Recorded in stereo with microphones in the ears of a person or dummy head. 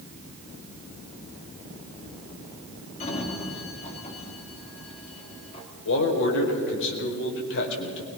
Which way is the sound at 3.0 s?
35° left (ahead or behind).